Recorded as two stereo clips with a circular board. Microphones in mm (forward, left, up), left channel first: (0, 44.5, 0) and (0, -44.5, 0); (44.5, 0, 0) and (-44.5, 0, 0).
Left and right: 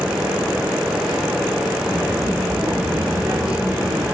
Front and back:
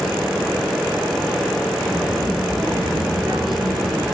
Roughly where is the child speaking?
Behind right.